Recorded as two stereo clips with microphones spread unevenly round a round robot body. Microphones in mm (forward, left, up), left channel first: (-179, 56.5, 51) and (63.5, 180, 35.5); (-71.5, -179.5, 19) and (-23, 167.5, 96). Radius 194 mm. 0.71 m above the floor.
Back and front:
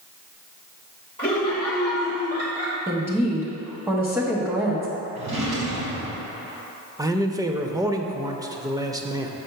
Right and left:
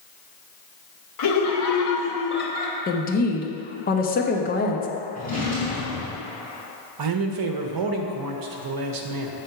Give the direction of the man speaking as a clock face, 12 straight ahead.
9 o'clock.